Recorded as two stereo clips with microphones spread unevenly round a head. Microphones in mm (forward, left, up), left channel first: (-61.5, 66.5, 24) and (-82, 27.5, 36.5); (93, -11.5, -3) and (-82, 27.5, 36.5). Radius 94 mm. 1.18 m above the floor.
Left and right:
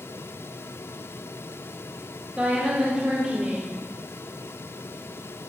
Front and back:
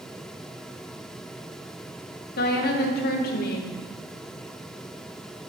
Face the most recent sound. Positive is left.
turn(degrees=-35)